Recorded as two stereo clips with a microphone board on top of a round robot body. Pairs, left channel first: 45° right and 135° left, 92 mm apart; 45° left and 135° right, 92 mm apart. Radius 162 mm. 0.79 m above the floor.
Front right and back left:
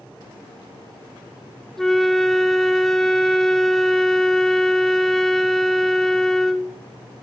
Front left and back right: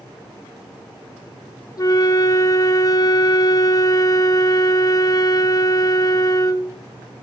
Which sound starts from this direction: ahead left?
A flute, at 1.8 s.